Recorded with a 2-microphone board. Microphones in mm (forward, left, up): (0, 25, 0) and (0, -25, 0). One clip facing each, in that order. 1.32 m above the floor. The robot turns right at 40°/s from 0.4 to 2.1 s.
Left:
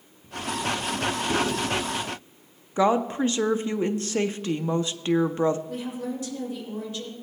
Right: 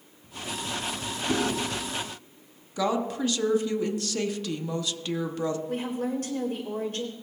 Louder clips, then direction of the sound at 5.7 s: Right 2 dB; 50° right (ahead or behind).